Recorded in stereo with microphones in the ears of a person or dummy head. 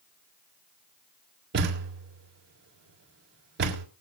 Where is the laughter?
No laughter in this recording.